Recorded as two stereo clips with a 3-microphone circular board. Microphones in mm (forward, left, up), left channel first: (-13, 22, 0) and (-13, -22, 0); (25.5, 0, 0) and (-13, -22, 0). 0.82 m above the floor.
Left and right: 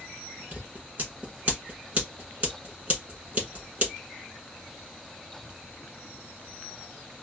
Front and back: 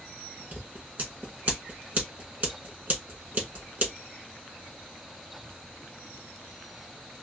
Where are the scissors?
120° right, 1.4 m.